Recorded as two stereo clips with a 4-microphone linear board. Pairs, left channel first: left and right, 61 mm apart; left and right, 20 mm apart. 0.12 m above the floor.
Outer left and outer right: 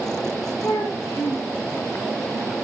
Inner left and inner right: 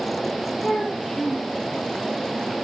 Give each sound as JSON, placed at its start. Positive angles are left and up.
{"t": 0.6, "sound": "a child speaking", "side_deg": 80, "distance_m": 6.0}